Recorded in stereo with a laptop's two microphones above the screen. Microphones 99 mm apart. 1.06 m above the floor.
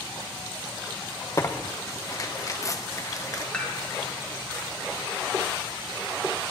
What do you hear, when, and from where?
1.4 s tearing paper: 35° left (ahead or behind), 0.7 m
3.5 s dishes clattering: 15° left (ahead or behind), 1.9 m